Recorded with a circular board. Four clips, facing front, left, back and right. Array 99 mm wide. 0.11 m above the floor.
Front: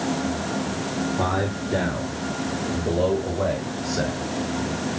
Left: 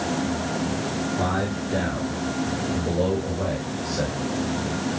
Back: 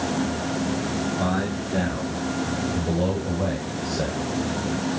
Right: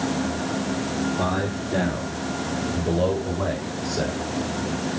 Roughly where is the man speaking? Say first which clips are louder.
Even, front 1 dB; ahead.